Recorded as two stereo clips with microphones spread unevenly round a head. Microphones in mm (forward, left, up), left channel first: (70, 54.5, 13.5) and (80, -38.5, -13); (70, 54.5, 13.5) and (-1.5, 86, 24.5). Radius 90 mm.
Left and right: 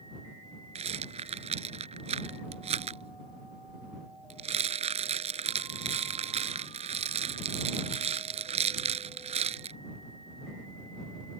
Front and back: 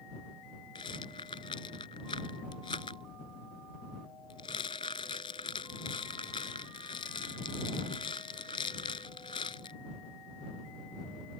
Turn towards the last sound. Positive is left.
turn(degrees=-80)